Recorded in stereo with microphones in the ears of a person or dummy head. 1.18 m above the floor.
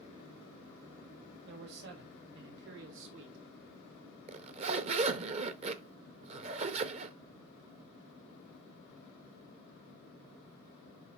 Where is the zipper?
35° right (ahead or behind), 0.9 m.